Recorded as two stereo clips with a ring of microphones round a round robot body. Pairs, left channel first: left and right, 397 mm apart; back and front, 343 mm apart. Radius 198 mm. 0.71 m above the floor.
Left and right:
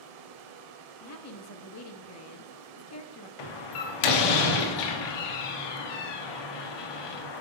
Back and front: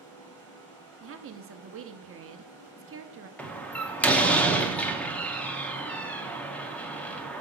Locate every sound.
0.0 s running water: 95° right, 0.9 m
1.0 s a woman speaking: 45° left, 0.9 m
3.4 s a door slam: 95° left, 1.1 m